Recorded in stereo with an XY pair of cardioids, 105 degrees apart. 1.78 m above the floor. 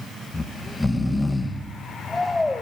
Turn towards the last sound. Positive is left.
turn(degrees=15)